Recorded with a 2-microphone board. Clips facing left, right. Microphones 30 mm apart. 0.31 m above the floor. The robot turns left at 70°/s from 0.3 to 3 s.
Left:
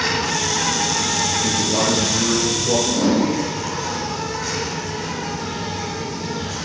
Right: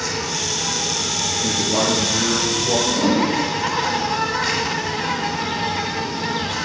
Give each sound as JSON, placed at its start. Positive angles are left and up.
{"t": 0.0, "sound": "an insect", "azimuth_deg": 130, "distance_m": 1.3}
{"t": 1.4, "sound": "a man speaking", "azimuth_deg": -140, "distance_m": 3.5}
{"t": 2.9, "sound": "a whoosh", "side_deg": 20, "distance_m": 5.5}